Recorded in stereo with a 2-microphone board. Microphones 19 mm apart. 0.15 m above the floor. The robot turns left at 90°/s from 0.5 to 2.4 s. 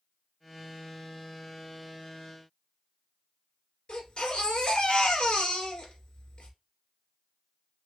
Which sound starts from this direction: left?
A baby crying, at 3.9 s.